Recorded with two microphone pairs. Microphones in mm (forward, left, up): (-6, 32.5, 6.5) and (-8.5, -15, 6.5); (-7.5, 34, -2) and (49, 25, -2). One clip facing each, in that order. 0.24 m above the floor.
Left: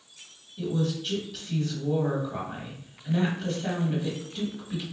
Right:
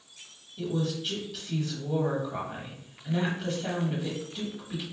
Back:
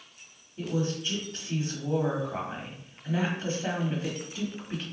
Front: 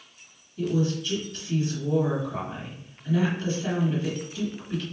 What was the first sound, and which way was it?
A woman speaking, straight behind.